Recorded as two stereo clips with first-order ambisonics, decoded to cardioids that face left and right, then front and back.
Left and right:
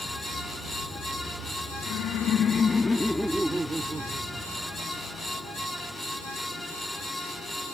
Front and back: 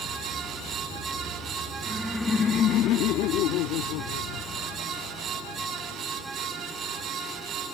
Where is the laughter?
100° left; by 6.0 s 25° right.